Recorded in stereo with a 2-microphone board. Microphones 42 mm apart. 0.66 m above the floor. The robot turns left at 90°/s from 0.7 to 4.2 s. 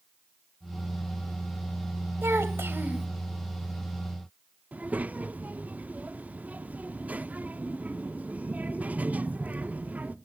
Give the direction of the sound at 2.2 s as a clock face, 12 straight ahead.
2 o'clock.